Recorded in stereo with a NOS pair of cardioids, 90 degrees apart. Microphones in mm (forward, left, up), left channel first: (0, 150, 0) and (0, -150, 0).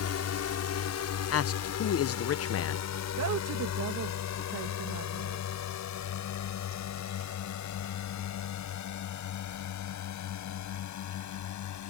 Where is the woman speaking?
55° right.